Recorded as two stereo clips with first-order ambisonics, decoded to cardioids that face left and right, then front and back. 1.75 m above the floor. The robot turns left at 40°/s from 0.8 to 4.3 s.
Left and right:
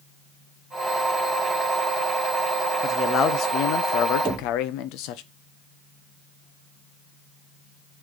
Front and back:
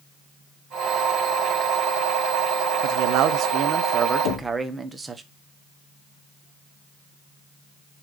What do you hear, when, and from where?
2.8 s a man speaking: 160° left, 0.9 m; by 5.2 s 100° left, 0.9 m
4.2 s knocking: 10° right, 3 m